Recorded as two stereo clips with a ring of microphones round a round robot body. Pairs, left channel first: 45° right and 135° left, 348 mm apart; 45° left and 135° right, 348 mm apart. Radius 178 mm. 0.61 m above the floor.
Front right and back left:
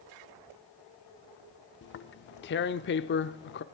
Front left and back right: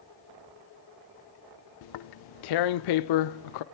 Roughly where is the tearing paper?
Ahead.